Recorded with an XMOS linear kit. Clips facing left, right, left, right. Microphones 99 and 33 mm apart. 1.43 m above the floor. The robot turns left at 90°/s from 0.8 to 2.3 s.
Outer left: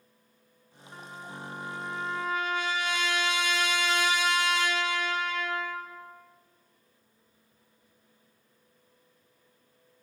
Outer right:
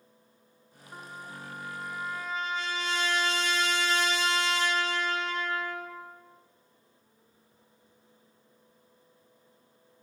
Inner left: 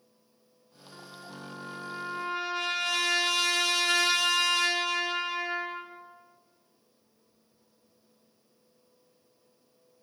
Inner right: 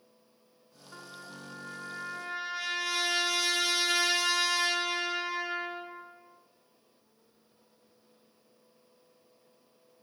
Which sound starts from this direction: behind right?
A trumpet, at 0.9 s.